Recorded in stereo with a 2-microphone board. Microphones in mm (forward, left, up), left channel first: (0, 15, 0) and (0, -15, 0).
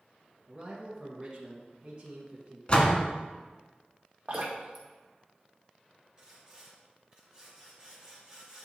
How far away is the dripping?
About 3 m.